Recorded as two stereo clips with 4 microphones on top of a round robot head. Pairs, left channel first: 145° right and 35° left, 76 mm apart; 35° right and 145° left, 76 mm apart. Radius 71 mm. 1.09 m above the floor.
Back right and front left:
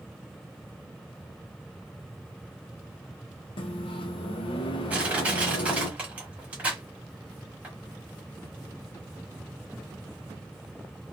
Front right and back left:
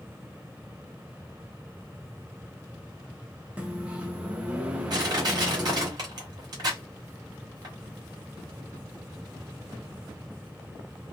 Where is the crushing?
105° left, 1.0 m.